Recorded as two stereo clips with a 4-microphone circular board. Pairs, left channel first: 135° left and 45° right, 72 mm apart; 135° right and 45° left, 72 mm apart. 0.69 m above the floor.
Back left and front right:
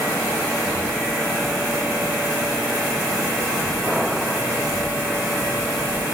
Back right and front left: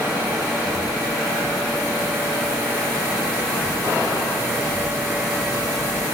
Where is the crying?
No crying in this recording.